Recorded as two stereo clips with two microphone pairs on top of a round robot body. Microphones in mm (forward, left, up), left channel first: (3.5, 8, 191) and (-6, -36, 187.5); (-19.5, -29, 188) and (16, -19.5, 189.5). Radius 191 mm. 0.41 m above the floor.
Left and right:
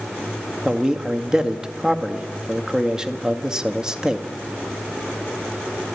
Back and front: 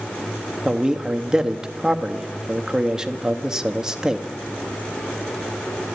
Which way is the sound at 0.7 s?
50° right.